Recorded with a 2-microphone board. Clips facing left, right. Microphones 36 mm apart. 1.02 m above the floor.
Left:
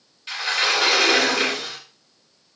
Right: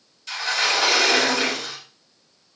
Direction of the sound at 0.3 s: 25° left (ahead or behind).